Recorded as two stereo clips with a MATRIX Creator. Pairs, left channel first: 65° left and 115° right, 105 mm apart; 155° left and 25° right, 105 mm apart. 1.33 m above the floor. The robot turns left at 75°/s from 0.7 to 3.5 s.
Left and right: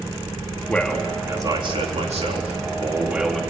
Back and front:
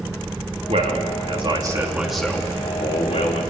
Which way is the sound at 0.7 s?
5° right.